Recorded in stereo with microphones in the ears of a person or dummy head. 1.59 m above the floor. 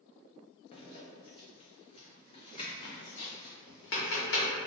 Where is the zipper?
35° left (ahead or behind), 0.5 m.